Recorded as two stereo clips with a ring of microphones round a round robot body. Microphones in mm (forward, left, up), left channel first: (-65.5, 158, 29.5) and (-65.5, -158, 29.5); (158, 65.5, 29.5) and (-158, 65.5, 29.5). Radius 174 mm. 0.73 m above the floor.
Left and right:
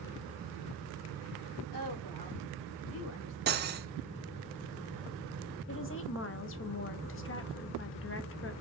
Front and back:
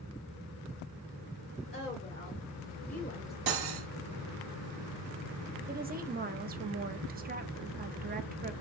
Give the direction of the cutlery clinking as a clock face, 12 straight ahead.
5 o'clock.